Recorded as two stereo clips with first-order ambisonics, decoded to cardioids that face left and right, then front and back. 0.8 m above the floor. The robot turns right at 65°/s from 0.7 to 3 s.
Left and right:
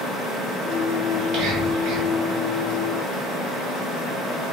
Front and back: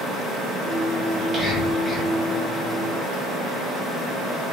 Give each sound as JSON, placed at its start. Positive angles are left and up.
{"t": 1.1, "sound": "whispering", "azimuth_deg": -140, "distance_m": 1.1}